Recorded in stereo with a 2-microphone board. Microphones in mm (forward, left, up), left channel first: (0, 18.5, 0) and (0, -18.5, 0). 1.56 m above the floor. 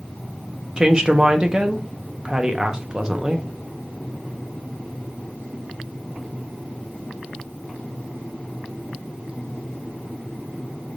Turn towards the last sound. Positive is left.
turn(degrees=-20)  # may be behind; listen again after turning